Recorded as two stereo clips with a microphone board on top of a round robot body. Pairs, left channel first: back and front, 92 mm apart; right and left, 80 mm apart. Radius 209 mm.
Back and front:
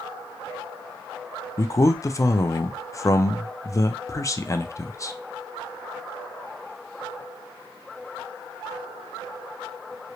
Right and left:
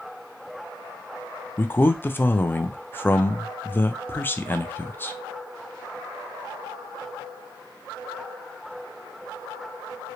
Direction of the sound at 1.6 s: 145° right.